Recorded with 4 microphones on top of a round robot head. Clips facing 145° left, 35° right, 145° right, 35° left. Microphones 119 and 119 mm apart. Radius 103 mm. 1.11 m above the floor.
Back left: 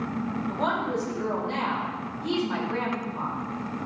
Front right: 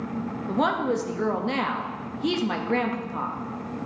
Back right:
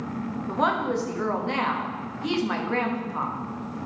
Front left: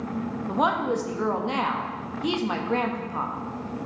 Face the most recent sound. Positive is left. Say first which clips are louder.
# front right 5 dB, front left 1 dB
turn(degrees=-40)